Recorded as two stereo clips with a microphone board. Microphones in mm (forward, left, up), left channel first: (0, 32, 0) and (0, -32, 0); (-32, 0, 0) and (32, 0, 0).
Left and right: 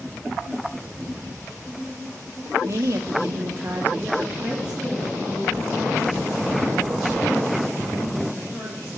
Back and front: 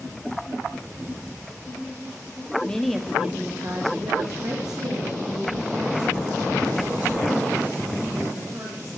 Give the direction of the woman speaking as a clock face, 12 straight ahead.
4 o'clock.